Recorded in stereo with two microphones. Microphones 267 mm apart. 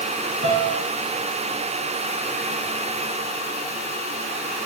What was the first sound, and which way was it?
A piano, 50° right (ahead or behind).